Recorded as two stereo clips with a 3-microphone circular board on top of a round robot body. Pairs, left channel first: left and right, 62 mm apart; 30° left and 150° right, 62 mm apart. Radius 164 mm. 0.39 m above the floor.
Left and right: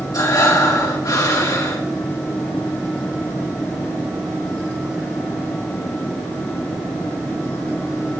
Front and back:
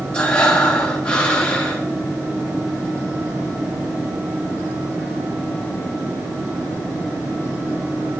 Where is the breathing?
100° left, 3.5 m.